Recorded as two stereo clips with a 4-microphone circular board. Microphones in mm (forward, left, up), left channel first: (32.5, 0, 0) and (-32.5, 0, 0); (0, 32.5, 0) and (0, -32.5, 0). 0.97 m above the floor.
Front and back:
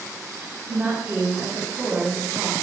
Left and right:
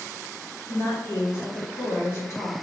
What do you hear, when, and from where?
0.7 s a woman speaking: 135° left, 2.5 m